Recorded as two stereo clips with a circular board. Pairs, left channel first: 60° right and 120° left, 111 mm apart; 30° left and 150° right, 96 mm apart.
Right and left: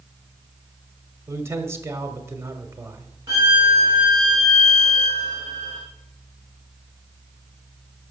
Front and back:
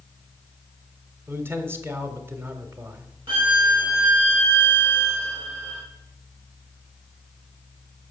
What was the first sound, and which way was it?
A man speaking, 165° left.